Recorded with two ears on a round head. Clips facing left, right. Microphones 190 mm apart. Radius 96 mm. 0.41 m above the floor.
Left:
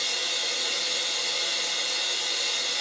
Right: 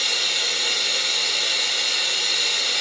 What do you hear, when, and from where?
0.0 s running water: 80° right, 0.9 m